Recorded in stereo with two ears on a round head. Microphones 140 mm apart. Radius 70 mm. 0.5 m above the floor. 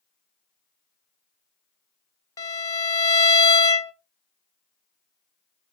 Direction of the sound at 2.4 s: 20° left (ahead or behind).